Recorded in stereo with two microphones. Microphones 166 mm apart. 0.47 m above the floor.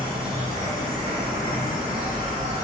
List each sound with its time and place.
0.0 s an insect: 40° right (ahead or behind), 2.5 m